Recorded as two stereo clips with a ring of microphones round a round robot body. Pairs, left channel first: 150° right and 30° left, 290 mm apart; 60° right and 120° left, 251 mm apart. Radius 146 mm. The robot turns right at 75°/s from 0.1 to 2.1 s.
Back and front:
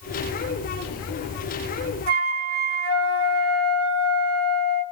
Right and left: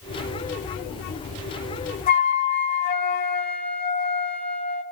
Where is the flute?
5° right, 3.5 m; by 4.8 s straight ahead, 3.5 m.